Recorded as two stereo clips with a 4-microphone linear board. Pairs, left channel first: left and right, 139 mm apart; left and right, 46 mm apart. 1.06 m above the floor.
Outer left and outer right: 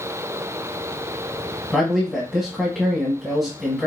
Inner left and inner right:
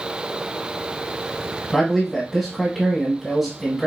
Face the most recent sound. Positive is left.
turn(degrees=5)  # may be behind; listen again after turning